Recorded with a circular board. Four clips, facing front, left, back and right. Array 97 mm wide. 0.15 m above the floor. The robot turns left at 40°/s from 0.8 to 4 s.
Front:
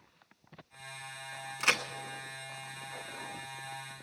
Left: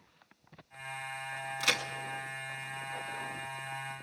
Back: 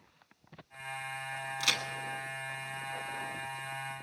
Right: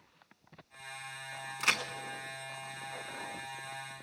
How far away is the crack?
About 1.1 m.